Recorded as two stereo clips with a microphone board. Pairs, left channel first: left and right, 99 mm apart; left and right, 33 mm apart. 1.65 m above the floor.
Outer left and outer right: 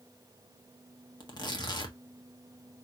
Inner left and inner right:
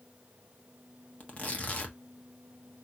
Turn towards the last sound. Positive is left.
turn(degrees=45)  # may be behind; listen again after turning